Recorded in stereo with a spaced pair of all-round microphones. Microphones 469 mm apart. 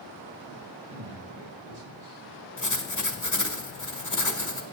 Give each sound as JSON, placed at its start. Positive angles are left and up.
{"t": 0.9, "sound": "a man speaking", "side_deg": -85, "distance_m": 3.0}
{"t": 2.6, "sound": "writing", "side_deg": 40, "distance_m": 1.3}